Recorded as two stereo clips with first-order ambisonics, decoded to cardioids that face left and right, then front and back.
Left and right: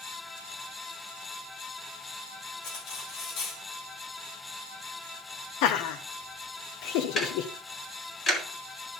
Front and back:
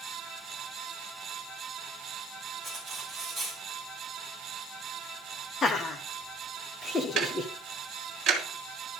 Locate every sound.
2.6 s cutlery clinking: 95° left, 4 m
5.6 s laughter: 70° left, 1.1 m
7.2 s ticking: 150° left, 1.8 m